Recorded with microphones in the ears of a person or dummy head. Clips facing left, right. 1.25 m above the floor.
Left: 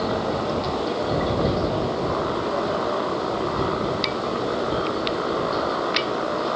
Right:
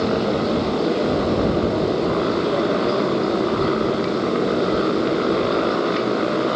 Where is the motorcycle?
35° right (ahead or behind).